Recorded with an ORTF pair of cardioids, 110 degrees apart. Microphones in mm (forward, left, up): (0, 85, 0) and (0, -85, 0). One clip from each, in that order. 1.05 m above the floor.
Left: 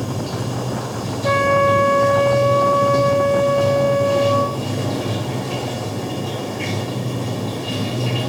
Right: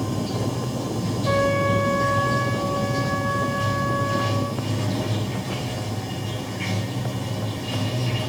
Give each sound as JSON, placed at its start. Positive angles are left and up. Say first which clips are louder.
{"t": 0.0, "sound": "running water", "louder": "left 1 dB", "azimuth_deg": 25, "distance_m": 3.5}
{"t": 1.2, "sound": "a trumpet", "louder": "left 6 dB", "azimuth_deg": 65, "distance_m": 5.0}